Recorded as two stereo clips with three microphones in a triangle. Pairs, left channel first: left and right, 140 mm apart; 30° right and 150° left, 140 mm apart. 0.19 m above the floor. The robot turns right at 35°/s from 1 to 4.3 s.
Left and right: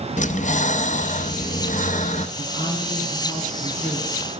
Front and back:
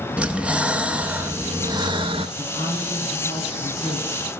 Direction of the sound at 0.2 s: 70° left.